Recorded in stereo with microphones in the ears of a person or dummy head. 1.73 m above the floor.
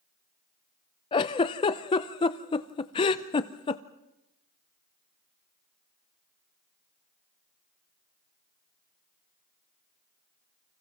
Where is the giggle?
25° left (ahead or behind), 0.7 m.